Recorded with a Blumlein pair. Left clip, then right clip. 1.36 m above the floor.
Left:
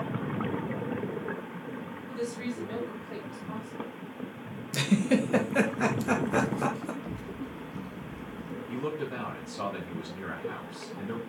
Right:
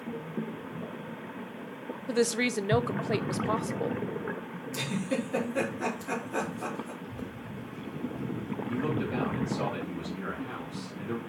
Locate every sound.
2.1 s a woman speaking: 55° right, 0.5 m
4.7 s a giggle: 65° left, 1.5 m
7.0 s a child speaking: 55° left, 1.4 m
8.7 s a man speaking: 10° left, 2.5 m